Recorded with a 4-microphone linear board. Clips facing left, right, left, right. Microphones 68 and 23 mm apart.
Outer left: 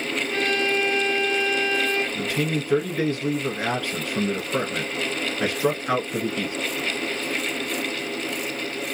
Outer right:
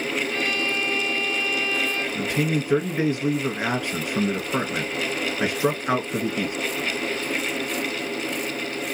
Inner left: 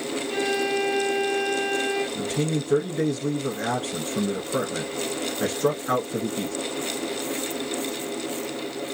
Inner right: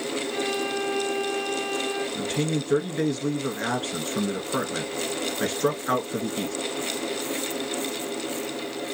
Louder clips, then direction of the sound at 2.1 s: Outer right 1 dB, even; 20° right (ahead or behind).